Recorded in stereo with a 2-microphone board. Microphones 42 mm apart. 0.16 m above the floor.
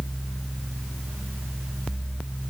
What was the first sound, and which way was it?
Only background noise.